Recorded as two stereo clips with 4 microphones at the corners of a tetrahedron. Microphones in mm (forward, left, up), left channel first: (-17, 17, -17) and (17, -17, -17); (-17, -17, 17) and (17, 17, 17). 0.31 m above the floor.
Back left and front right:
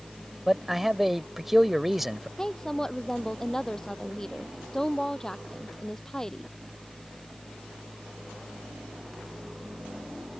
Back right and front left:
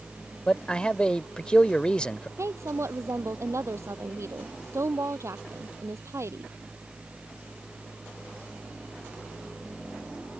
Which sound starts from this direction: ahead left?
A woman speaking, at 2.4 s.